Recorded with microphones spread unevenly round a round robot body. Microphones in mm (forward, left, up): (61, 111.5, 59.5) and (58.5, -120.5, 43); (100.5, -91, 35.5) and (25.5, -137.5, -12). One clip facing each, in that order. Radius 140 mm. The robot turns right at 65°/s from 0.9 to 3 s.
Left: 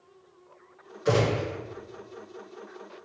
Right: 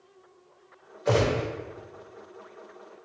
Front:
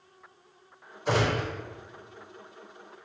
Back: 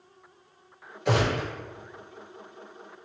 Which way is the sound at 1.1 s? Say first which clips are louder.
Even, back 1 dB; 145° left.